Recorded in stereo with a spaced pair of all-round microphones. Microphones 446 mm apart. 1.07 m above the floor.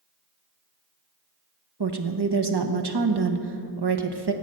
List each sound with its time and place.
1.8 s a woman speaking: 65° right (ahead or behind), 0.9 m